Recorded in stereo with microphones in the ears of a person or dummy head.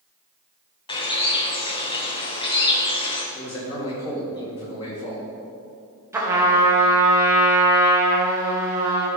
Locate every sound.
0.9 s a bird: 25° left (ahead or behind), 1.0 m
3.4 s a man speaking: 25° left (ahead or behind), 3 m
6.1 s a trumpet: 15° right (ahead or behind), 1.1 m